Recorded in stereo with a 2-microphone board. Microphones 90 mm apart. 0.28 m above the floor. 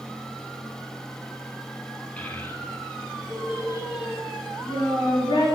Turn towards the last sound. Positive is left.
turn(degrees=65)  # may be behind; listen again after turning